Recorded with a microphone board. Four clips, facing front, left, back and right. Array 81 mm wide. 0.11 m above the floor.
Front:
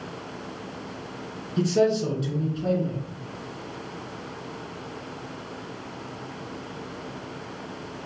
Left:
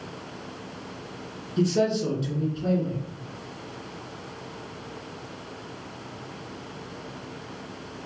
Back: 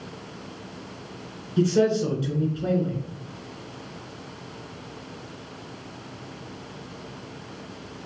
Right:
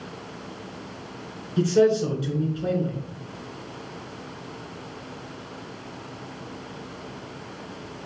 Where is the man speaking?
125° right, 1.4 m.